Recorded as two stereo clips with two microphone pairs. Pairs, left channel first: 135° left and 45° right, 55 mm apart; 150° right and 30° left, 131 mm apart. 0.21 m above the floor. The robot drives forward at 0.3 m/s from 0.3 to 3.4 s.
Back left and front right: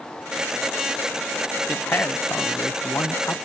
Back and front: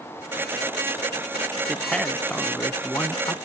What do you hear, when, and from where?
1.7 s a man speaking: 125° left; by 3.4 s 145° left